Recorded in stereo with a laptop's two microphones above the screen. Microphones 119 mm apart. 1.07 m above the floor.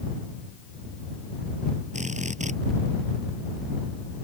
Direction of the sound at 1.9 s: 85° right.